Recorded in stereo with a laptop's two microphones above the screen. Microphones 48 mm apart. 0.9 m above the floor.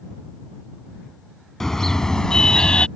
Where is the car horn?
5° left (ahead or behind); by 2.9 s 20° left (ahead or behind).